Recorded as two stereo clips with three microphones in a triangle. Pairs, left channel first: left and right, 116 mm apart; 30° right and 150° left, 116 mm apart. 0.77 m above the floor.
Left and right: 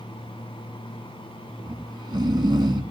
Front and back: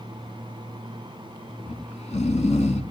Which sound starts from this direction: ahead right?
Snoring, at 1.6 s.